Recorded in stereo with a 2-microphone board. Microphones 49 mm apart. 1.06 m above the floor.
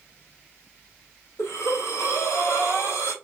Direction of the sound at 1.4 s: 75° left (ahead or behind).